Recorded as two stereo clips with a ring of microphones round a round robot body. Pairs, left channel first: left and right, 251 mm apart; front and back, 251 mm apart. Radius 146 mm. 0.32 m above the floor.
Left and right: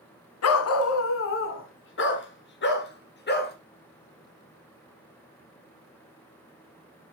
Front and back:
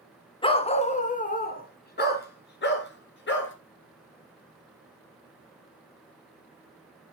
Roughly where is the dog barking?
Left.